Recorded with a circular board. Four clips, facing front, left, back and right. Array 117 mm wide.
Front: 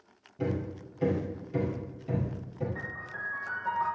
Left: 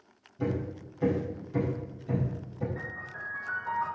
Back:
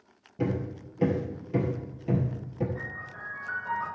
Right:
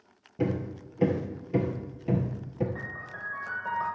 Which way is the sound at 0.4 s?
115° right.